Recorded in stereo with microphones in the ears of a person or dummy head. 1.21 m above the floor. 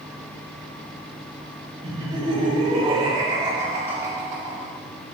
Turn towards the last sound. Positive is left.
turn(degrees=-5)  # may be behind; listen again after turning